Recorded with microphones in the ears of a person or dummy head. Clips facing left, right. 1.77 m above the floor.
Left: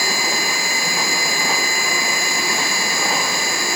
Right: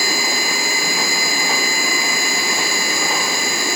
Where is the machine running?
75° right (ahead or behind).